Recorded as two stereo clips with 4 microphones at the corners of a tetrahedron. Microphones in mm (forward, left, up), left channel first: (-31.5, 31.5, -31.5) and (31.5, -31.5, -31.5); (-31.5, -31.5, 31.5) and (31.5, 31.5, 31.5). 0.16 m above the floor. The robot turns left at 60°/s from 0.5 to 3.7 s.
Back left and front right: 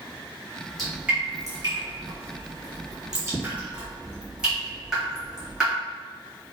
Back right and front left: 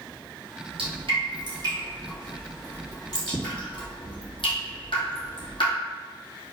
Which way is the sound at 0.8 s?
50° left.